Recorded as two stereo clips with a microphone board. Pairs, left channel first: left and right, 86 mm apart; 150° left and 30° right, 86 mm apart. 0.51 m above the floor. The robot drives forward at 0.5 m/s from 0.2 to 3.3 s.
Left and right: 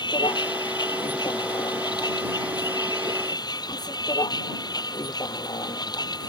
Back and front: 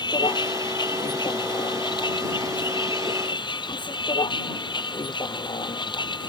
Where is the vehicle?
120° left; by 6.3 s 130° left.